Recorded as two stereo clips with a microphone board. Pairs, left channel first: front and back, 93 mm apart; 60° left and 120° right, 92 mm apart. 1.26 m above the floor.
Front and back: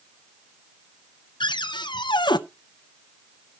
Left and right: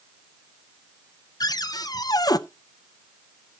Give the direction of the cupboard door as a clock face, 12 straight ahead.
11 o'clock.